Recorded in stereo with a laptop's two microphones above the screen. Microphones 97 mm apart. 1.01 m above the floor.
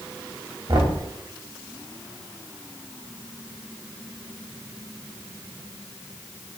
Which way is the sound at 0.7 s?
45° right (ahead or behind).